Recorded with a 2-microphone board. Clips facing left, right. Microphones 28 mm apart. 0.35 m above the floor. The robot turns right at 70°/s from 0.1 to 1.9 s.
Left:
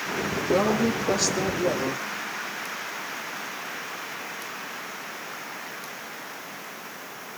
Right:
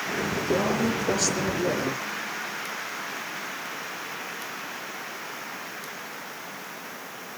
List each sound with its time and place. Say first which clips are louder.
0.5 s a woman speaking: left 3 dB; 120° left, 6 m; by 2.0 s 140° right, 6 m